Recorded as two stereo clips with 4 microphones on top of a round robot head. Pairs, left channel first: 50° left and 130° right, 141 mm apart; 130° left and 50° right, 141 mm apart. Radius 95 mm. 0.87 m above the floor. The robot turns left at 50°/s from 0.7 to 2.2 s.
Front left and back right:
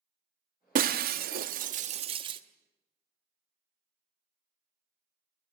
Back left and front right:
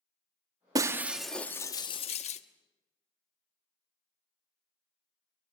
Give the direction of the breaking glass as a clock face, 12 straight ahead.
4 o'clock.